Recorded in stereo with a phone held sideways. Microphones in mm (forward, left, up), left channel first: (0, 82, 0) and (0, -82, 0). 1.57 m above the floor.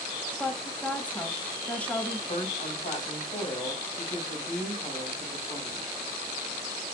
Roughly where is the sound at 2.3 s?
Left.